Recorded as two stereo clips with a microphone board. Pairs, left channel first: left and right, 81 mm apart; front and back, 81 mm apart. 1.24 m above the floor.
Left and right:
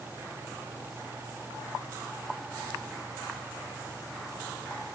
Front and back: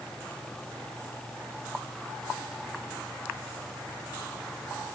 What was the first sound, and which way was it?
Only background noise.